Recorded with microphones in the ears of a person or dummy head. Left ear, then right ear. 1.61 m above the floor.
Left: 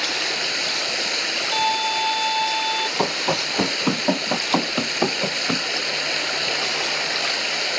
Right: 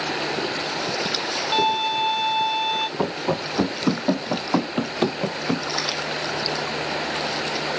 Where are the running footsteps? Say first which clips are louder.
Left 3 dB; 60° left (ahead or behind); by 5.7 s 70° left (ahead or behind).